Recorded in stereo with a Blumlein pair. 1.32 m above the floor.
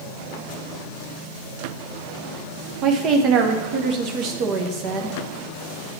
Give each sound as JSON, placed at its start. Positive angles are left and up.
{"t": 2.8, "sound": "a woman speaking", "azimuth_deg": -35, "distance_m": 0.9}